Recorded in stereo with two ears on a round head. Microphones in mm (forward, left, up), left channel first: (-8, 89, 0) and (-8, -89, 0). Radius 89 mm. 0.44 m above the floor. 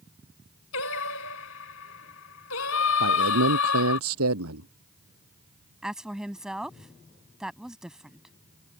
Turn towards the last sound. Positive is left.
turn(degrees=-5)  # may be behind; listen again after turning